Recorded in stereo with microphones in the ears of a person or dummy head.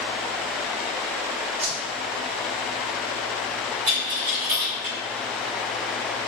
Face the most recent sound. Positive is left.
turn(degrees=-30)  # may be behind; listen again after turning